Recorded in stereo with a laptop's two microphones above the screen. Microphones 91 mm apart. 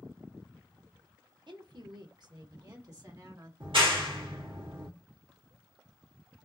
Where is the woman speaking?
60° right (ahead or behind), 1.1 m; by 3.5 s 40° right (ahead or behind), 2.0 m.